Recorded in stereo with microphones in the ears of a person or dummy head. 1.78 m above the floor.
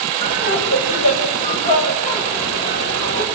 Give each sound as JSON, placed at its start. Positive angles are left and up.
{"t": 0.2, "sound": "laughter", "side_deg": 40, "distance_m": 9.5}